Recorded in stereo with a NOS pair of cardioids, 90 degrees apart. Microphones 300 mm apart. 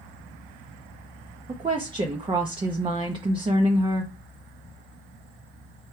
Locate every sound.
1.5 s a woman speaking: 15° right, 0.6 m